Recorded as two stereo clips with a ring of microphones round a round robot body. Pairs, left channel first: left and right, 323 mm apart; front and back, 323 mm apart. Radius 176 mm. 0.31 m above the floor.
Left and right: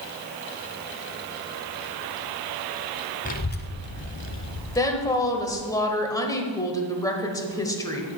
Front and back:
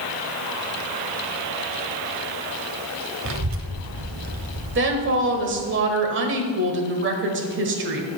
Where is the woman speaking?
165° left, 1.2 m.